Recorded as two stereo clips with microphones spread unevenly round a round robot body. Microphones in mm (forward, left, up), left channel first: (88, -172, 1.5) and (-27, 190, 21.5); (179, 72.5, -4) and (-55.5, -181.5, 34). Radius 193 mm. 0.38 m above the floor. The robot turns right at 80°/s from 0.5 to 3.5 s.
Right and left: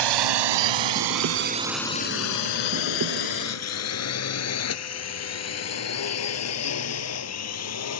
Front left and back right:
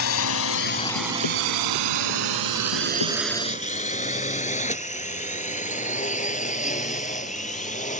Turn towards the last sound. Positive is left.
turn(degrees=-20)